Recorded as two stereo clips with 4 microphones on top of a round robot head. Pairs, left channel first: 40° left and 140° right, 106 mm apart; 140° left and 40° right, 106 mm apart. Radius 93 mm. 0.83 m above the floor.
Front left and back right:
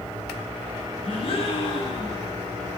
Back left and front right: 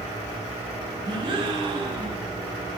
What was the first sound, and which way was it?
A gasp, 5° left.